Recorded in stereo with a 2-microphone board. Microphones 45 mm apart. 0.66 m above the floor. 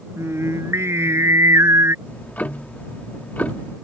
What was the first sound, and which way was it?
Singing, 85° right.